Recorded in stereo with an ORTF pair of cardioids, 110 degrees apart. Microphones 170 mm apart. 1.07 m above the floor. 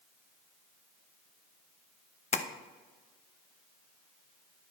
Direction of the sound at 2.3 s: 45° left.